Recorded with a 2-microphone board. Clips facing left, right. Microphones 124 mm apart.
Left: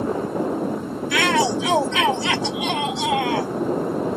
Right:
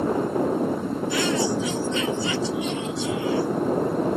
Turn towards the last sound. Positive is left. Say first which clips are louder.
# left 5 dB
turn(degrees=75)  # may be behind; listen again after turning